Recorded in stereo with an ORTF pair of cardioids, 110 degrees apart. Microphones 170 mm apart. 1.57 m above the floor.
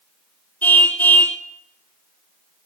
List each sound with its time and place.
0.6 s a car horn: 10° left, 2.5 m